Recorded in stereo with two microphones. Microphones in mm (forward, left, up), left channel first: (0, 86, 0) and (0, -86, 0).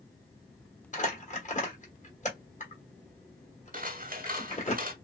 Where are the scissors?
55° right (ahead or behind), 0.8 m.